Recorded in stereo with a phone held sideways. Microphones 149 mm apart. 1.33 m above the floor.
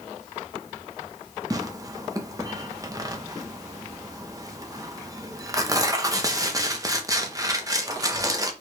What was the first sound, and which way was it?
Tearing paper, 25° right (ahead or behind).